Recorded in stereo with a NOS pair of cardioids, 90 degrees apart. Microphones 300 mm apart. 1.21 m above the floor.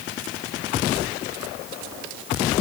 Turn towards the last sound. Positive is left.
No sound to turn to.